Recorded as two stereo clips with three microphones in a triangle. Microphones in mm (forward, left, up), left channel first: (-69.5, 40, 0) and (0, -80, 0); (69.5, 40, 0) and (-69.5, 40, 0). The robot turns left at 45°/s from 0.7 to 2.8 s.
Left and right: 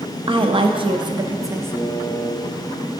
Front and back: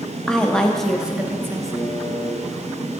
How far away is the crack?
No crack in this recording.